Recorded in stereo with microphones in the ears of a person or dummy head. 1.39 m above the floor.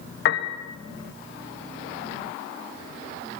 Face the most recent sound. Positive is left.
turn(degrees=70)  # may be behind; listen again after turning